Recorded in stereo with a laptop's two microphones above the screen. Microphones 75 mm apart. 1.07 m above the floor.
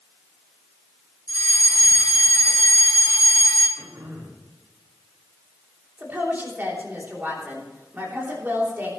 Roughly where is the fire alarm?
Left.